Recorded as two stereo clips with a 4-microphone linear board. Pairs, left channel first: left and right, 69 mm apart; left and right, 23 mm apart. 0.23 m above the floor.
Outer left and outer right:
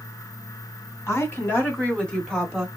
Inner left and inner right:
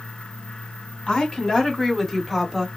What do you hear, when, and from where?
1.1 s a woman speaking: 40° left (ahead or behind), 2 m; by 2.7 s 5° right (ahead or behind), 1.7 m